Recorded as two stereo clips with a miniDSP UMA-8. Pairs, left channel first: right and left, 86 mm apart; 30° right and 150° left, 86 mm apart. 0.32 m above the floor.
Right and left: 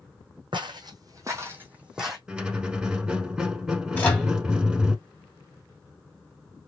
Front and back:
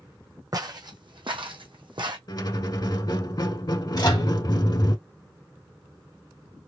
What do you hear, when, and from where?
0.5 s footsteps: 110° left, 1.1 m; by 2.2 s straight behind, 1.1 m
2.3 s a squeak: 10° left, 0.6 m
4.0 s a microwave: 25° right, 1.8 m